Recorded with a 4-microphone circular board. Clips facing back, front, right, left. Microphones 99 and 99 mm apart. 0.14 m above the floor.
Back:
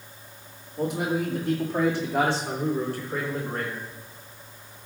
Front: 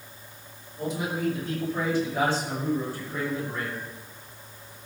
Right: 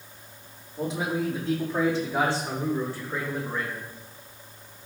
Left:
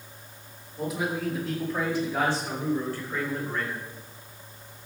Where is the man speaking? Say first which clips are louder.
Back 3 dB, right 2 dB; 155° right, 5.5 m; by 3.8 s 160° right, 8 m.